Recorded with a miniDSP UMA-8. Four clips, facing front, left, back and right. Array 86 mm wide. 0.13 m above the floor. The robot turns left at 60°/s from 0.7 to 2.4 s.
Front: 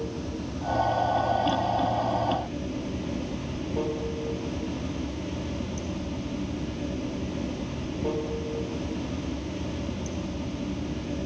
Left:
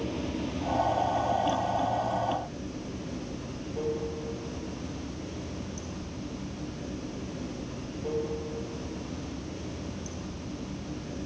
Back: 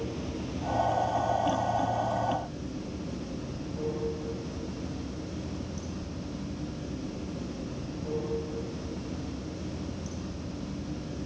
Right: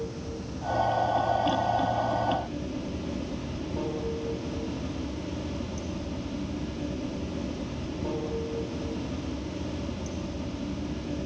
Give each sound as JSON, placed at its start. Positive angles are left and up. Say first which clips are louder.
{"t": 0.0, "sound": "running water", "louder": "left 3 dB, front 2 dB", "azimuth_deg": 85, "distance_m": 1.5}